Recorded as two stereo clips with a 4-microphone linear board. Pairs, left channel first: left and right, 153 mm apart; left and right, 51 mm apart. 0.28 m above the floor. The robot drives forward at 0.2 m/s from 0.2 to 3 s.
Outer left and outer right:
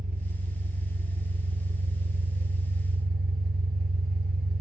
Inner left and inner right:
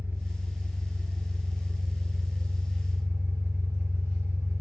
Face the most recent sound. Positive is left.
turn(degrees=-75)  # may be behind; listen again after turning